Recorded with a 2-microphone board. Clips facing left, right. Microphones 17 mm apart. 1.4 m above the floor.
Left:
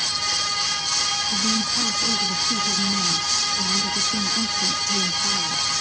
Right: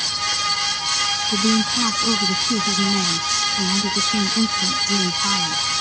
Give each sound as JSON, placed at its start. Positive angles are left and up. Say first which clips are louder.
{"t": 1.3, "sound": "a woman speaking", "louder": "right 3 dB", "side_deg": -80}